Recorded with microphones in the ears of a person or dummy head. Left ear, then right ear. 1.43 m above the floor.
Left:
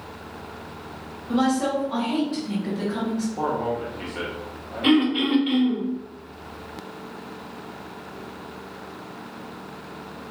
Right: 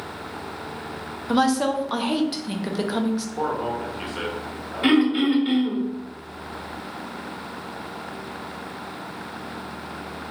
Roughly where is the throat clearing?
Right.